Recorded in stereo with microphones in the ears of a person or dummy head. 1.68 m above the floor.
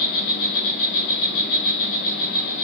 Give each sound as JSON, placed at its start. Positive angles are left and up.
{"t": 0.0, "sound": "an insect", "side_deg": 60, "distance_m": 6.5}